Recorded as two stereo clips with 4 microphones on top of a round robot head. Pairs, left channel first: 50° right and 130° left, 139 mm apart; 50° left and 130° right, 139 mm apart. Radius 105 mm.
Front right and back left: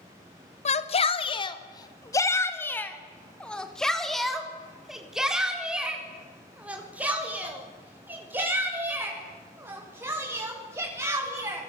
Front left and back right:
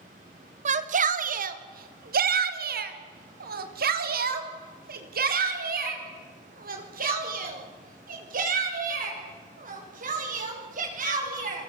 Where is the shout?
90° right, 1.8 m; by 11.7 s 160° right, 8.5 m.